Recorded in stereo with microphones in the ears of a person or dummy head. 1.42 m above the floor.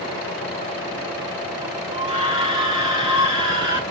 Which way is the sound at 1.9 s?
30° right (ahead or behind).